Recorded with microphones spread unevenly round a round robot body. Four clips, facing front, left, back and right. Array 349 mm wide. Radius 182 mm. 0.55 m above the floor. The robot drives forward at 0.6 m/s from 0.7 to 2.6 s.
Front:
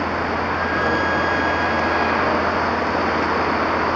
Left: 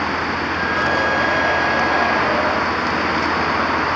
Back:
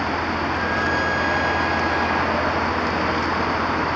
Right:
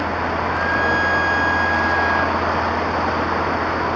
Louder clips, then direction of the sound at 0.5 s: Even, front 2 dB; 145° right.